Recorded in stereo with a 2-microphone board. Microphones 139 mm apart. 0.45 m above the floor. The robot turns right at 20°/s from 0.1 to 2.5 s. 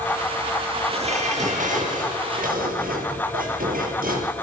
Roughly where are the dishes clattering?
Behind right.